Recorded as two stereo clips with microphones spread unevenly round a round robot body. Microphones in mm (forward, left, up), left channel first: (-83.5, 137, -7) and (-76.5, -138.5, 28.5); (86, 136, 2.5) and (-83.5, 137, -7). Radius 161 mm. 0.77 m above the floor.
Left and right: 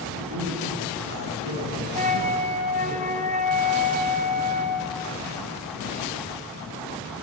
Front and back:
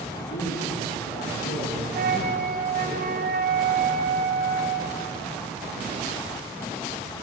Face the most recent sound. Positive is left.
turn(degrees=-155)